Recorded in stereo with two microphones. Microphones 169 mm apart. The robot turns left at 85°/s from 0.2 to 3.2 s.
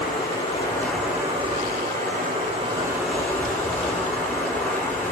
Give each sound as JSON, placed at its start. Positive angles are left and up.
{"t": 0.0, "sound": "running water", "azimuth_deg": 65, "distance_m": 5.0}